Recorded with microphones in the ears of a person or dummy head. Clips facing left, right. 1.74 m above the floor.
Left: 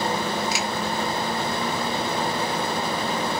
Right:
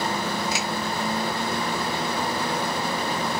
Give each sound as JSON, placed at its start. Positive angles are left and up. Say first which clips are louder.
{"t": 0.5, "sound": "a finger snap", "louder": "left 1 dB", "side_deg": 55, "distance_m": 1.9}